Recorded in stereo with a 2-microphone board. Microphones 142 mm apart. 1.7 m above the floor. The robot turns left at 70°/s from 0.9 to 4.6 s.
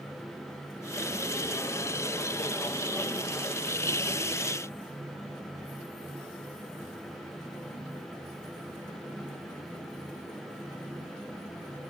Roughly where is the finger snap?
No finger snap in this recording.